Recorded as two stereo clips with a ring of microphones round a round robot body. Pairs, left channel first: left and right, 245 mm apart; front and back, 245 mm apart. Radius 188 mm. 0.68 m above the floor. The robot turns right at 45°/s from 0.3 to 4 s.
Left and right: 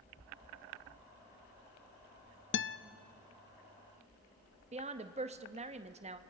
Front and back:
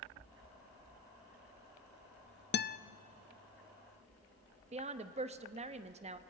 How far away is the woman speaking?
About 0.8 m.